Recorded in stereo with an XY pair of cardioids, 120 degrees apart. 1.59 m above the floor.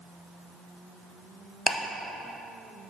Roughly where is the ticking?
Ahead.